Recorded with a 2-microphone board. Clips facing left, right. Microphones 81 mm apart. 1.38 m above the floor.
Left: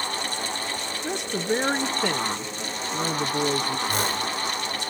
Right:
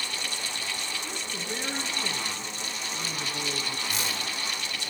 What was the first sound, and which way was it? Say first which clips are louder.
A woman speaking: left 9 dB; 70° left (ahead or behind).